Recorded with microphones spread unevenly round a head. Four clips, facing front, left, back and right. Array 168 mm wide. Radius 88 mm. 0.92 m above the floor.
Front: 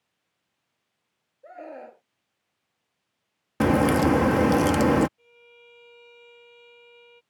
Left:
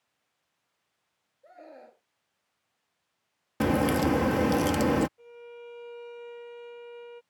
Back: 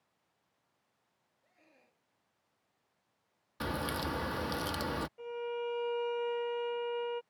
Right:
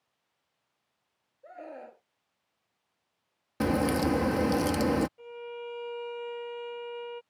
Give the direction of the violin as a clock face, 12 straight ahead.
5 o'clock.